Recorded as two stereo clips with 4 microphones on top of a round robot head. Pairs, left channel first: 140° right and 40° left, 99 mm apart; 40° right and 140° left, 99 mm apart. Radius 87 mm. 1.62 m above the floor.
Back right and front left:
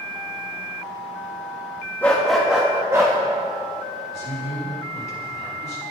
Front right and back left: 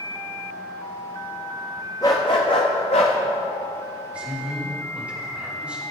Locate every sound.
2.0 s a dog barking: 75° right, 1.0 m; by 3.2 s 15° right, 1.2 m
4.1 s a man speaking: 140° right, 3.5 m